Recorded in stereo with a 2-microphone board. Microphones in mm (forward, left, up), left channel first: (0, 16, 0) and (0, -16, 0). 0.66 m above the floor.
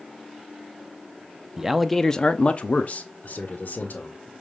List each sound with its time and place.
1.6 s a man speaking: 15° right (ahead or behind), 0.6 m; by 4.3 s 70° left (ahead or behind), 1.9 m